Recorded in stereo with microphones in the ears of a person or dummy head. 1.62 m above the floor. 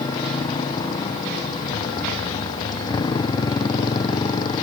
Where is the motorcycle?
20° left (ahead or behind).